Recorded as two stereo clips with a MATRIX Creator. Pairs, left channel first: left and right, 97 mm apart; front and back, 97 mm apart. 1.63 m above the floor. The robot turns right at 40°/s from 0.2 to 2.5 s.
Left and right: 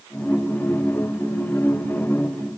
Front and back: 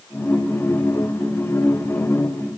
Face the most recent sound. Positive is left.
No sound to turn to.